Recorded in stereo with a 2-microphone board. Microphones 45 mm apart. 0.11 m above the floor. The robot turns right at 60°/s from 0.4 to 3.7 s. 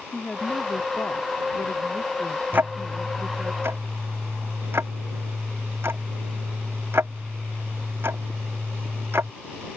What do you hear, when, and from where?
0.1 s a woman speaking: 25° left; by 3.5 s 150° right
2.5 s ticking: 45° right (ahead or behind); by 9.3 s 65° right (ahead or behind)